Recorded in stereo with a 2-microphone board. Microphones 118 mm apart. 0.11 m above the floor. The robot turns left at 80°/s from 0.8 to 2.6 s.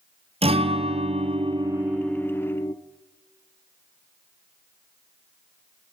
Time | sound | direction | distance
0.4 | a guitar | 80° right | 1.4 m